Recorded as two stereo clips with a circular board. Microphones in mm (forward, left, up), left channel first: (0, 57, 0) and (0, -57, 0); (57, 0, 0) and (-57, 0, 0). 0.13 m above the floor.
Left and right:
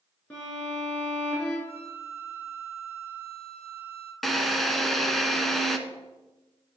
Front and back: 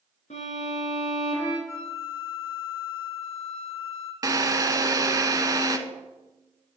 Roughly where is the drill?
Behind.